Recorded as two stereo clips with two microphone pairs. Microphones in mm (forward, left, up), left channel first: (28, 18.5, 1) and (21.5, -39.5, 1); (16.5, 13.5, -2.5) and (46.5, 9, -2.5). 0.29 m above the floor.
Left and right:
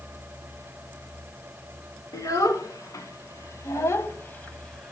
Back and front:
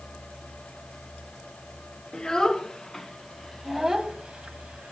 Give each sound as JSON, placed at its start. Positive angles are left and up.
{"t": 2.1, "sound": "a child speaking", "azimuth_deg": 100, "distance_m": 2.5}